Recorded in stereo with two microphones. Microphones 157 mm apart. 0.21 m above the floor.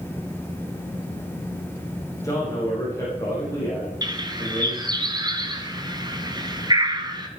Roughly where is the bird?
Right.